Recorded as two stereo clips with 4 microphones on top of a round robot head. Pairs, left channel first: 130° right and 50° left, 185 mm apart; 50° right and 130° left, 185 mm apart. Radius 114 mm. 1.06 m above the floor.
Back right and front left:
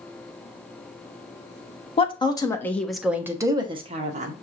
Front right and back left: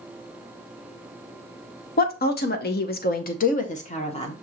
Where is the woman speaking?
75° right, 1.1 m; by 4.3 s 5° left, 1.2 m.